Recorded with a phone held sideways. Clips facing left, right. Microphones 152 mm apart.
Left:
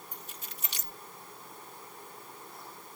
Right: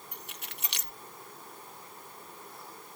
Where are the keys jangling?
70° right (ahead or behind).